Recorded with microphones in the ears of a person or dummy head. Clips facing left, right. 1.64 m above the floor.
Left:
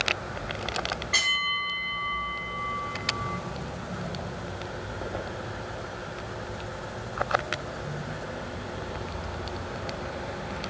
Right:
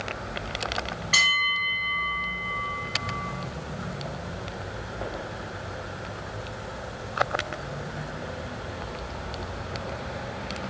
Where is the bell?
40° right (ahead or behind), 1.8 m.